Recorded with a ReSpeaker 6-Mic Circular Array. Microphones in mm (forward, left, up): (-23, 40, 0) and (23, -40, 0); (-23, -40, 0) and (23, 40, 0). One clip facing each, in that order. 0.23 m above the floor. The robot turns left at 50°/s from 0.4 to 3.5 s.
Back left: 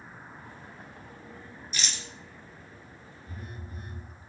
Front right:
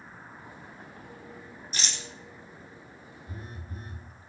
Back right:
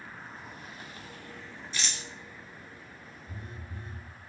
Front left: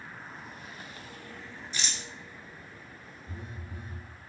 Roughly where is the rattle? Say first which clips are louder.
Even, even; ahead.